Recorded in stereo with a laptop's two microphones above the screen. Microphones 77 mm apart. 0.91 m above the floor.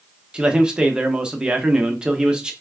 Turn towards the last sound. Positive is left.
turn(degrees=-10)  # may be behind; listen again after turning